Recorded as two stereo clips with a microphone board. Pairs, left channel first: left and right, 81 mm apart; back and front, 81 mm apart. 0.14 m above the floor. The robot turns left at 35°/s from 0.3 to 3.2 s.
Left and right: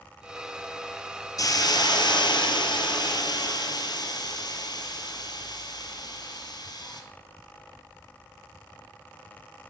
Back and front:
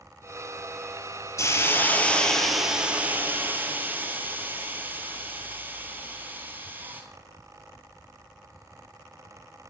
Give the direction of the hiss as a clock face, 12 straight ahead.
8 o'clock.